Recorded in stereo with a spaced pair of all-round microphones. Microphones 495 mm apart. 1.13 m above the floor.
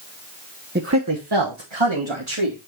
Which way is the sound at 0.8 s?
20° right (ahead or behind).